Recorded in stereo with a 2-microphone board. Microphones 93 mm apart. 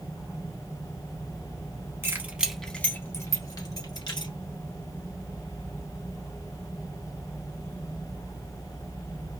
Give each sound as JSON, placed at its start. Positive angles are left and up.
{"t": 2.0, "sound": "keys jangling", "side_deg": -30, "distance_m": 1.0}